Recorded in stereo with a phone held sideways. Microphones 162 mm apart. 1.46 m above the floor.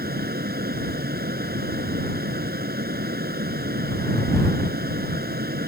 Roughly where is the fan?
Right.